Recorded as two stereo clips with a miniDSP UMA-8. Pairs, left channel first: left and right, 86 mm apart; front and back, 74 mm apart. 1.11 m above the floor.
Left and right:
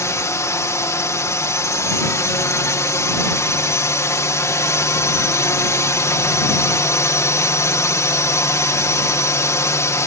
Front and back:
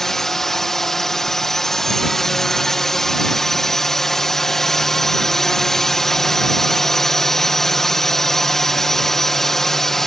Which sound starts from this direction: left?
A drone, at 0.0 s.